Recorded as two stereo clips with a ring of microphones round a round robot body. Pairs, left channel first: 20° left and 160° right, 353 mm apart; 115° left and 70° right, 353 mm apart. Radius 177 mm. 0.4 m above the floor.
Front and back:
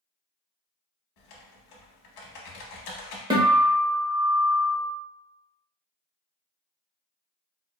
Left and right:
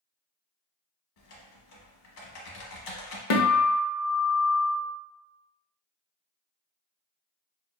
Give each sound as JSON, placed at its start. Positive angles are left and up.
{"t": 1.2, "sound": "typing on a keyboard", "azimuth_deg": 60, "distance_m": 0.8}
{"t": 3.3, "sound": "a guitar", "azimuth_deg": 125, "distance_m": 0.7}